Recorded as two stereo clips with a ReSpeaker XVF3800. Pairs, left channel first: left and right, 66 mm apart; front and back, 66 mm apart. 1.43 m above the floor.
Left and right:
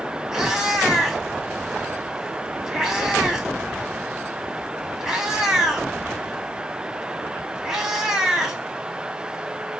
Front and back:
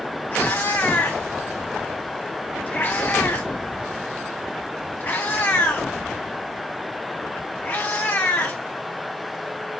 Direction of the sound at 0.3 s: 20° right.